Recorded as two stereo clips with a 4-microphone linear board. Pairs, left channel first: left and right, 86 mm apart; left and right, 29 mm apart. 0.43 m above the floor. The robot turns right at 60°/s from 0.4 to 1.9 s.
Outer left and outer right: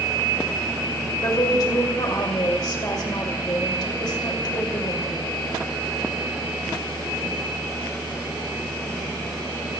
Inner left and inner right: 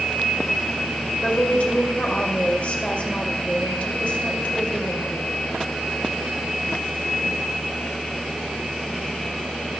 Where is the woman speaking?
60° left, 1.9 m; by 5.3 s 100° left, 1.9 m.